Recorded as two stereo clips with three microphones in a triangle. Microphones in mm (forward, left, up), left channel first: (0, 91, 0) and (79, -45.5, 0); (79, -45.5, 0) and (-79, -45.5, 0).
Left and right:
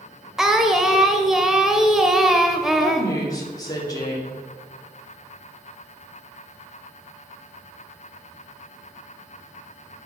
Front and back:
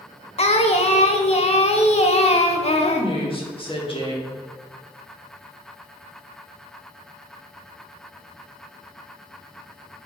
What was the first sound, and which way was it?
Singing, 25° left.